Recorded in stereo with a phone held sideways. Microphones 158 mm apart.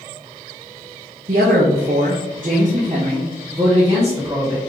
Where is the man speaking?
70° right (ahead or behind), 0.7 m; by 4.6 s 30° right (ahead or behind), 1.9 m.